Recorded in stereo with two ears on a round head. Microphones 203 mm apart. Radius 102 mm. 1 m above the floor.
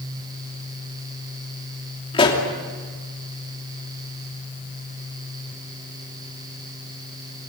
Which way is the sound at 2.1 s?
25° left (ahead or behind).